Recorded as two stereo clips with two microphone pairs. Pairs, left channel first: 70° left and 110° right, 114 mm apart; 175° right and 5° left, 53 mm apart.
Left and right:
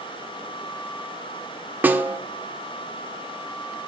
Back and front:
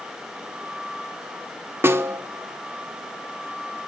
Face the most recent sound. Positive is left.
turn(degrees=-40)